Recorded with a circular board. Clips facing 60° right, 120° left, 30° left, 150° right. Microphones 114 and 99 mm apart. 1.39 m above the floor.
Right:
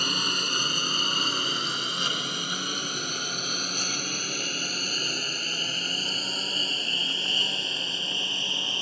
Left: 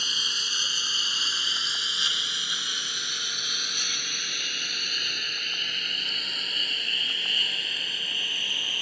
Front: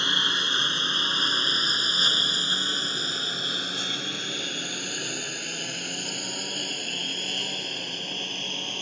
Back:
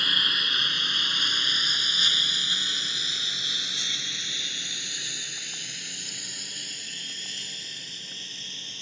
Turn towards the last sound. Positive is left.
turn(degrees=5)